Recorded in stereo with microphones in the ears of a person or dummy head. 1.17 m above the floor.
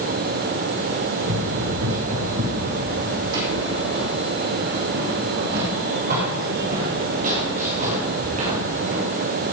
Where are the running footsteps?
60° right (ahead or behind), 3.5 m; by 9.0 s 40° right (ahead or behind), 4.5 m.